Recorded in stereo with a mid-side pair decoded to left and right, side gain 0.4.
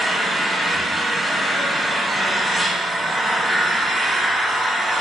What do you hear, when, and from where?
0.0 s an engine running: 10° right, 3.5 m